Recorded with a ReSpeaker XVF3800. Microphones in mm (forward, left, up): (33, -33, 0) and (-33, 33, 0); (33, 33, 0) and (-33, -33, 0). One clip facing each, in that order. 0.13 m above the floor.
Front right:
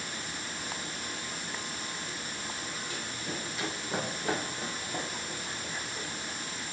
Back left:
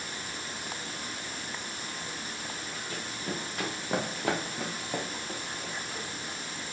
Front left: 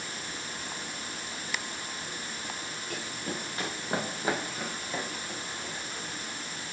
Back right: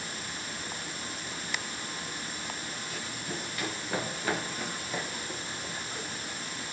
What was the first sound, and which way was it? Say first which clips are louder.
Running footsteps: back left 5 dB, front left 4 dB; 85° left.